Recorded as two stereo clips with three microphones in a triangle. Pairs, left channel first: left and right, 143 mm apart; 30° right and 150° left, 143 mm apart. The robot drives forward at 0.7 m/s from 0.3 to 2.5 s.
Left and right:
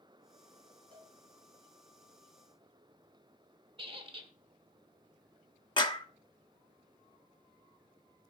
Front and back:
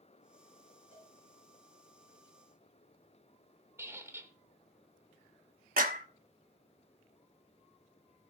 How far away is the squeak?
About 1.1 m.